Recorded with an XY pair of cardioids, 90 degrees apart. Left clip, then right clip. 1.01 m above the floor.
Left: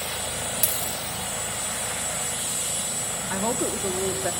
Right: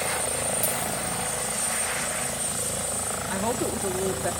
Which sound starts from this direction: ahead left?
A dropped coin, at 0.6 s.